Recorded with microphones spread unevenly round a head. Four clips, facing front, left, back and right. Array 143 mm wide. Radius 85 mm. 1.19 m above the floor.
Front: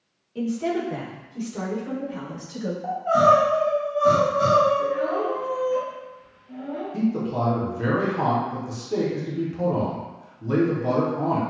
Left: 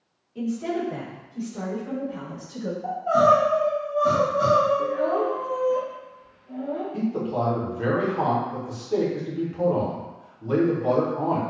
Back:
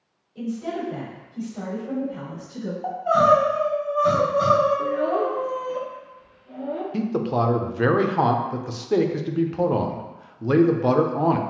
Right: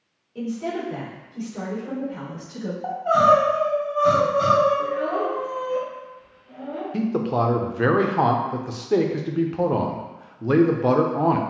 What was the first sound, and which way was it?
A woman speaking, 25° right.